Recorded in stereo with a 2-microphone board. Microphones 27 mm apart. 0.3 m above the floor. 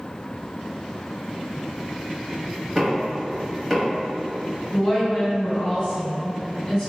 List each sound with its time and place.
2.8 s knocking: 10° right (ahead or behind), 0.9 m
4.7 s a woman speaking: 20° left (ahead or behind), 1.7 m